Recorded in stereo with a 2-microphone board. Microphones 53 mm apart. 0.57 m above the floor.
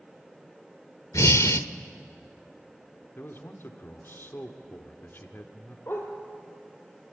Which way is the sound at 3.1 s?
45° left (ahead or behind).